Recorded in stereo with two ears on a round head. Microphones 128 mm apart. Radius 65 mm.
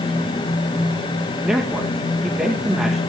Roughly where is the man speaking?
Centre.